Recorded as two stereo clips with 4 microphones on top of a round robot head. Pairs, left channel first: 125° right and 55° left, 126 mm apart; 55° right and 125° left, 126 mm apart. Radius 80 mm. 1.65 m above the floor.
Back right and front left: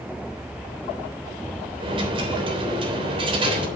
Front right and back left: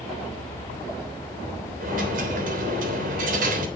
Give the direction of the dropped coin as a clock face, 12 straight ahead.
8 o'clock.